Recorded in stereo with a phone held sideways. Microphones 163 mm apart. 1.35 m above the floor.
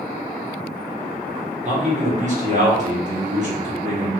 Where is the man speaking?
45° right (ahead or behind), 1.2 m.